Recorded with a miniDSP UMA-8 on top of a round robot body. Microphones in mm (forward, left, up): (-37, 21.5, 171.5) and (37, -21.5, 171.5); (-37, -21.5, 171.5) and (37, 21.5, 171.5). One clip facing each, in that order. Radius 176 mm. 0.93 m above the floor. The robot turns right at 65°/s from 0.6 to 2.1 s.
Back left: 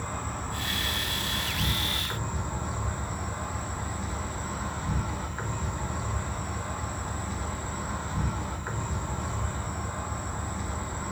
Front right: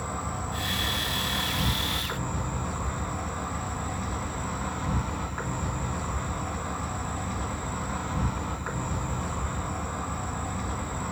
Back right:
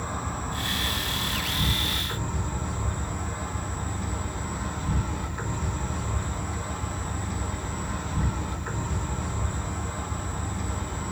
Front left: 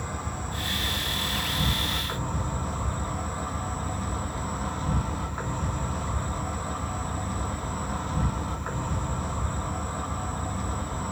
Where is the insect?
105° right, 2.5 m; by 11.1 s 10° right, 2.5 m.